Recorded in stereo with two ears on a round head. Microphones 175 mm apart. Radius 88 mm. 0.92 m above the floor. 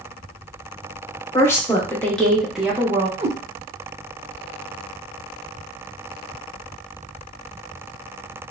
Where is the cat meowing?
35° right (ahead or behind), 0.6 m.